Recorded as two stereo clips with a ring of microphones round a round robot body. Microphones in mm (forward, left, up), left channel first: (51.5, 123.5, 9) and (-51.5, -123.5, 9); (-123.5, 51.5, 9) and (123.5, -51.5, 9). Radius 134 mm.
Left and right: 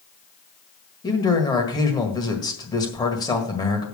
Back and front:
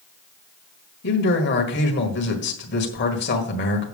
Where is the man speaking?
135° left, 1.6 m.